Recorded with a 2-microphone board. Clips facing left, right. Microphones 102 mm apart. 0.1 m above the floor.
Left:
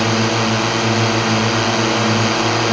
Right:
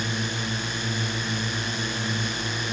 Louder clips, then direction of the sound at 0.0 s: Left 14 dB; 85° left.